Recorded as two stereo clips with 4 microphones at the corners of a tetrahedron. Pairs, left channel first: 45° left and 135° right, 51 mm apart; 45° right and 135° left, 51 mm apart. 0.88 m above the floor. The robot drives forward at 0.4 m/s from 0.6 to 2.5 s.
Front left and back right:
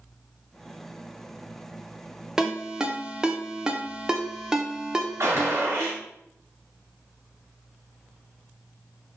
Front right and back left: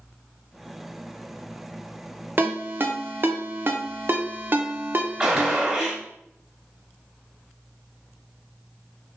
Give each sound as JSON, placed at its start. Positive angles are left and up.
{"t": 2.4, "sound": "a ringtone", "azimuth_deg": 150, "distance_m": 0.5}
{"t": 5.2, "sound": "a gunshot", "azimuth_deg": -150, "distance_m": 1.3}